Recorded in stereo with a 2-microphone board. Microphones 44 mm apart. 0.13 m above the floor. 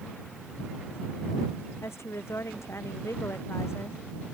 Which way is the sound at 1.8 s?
80° left.